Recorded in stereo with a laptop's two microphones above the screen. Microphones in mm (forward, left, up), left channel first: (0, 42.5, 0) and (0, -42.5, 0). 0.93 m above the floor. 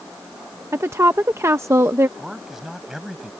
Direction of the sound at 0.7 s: 35° right (ahead or behind).